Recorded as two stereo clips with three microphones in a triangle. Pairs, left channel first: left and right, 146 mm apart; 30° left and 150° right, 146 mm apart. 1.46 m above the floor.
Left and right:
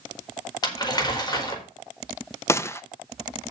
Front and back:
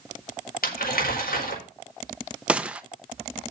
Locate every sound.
0.6 s crumpling: 30° left, 4.5 m
2.5 s a gunshot: 140° left, 0.7 m